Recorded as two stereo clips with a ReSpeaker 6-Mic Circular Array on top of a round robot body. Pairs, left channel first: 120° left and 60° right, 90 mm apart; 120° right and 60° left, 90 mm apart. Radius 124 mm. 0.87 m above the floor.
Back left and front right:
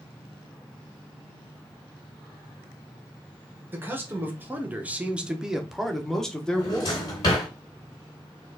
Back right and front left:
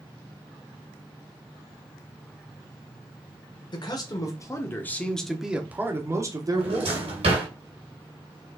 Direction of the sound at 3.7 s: 120° right.